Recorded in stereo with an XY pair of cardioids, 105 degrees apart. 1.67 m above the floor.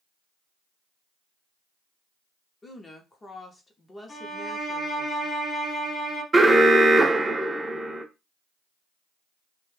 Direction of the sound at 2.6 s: 25° left.